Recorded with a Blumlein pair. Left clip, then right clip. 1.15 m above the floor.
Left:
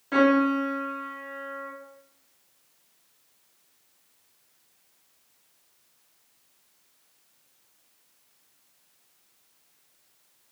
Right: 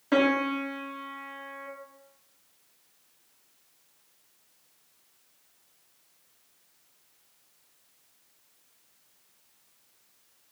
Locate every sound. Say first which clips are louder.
0.1 s a piano: left 3 dB; 20° right, 0.8 m